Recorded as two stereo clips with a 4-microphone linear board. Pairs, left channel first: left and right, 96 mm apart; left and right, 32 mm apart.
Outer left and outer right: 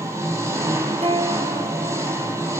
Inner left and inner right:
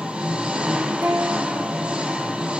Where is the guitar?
75° right (ahead or behind), 5 m.